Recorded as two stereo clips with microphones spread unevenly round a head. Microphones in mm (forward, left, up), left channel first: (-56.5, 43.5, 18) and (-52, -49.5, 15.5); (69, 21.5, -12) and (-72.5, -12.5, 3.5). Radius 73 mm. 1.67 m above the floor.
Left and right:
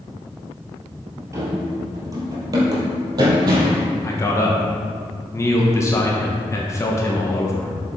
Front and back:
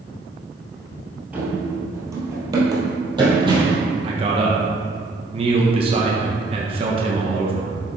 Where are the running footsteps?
110° right, 1.9 m; by 3.8 s 120° right, 3 m.